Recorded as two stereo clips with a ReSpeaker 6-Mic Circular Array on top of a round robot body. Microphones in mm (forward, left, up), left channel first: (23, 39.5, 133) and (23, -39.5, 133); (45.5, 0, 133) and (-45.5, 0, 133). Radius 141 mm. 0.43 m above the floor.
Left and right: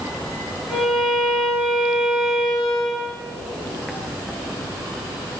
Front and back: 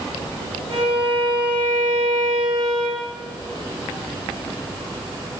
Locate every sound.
0.7 s a violin: 170° right, 6 m